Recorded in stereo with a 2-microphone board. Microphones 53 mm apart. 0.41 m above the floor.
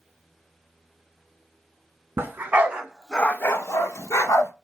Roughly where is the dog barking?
Right.